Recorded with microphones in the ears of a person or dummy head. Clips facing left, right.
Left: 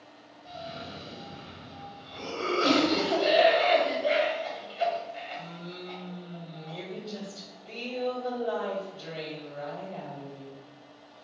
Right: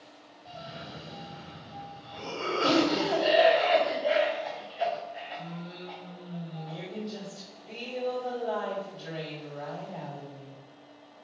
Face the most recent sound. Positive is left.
turn(degrees=5)  # may be behind; listen again after turning